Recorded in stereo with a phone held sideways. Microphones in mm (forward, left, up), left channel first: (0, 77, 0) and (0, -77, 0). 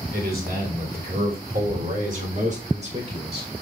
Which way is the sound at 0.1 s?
70° right (ahead or behind).